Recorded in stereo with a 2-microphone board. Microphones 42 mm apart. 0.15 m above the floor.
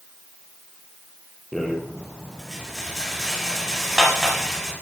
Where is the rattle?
5° left (ahead or behind), 4 m.